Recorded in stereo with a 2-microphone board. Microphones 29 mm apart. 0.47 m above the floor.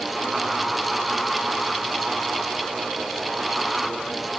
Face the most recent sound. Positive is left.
No sound to turn to.